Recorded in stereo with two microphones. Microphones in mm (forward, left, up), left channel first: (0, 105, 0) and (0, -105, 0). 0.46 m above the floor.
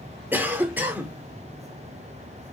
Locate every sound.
0.3 s a cough: 10° right (ahead or behind), 0.8 m